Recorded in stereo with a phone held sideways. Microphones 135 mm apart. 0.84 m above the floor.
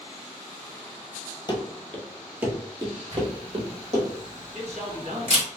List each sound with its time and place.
1.5 s running footsteps: 35° left (ahead or behind), 1.0 m; by 4.1 s 55° right (ahead or behind), 1.8 m
3.1 s a camera shutter: 60° right (ahead or behind), 1.4 m
4.5 s a man speaking: 55° right (ahead or behind), 1.0 m